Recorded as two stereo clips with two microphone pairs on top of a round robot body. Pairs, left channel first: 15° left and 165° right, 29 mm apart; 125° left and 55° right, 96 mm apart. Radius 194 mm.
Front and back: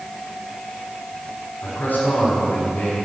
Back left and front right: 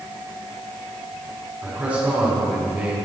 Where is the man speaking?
20° left, 6.5 m.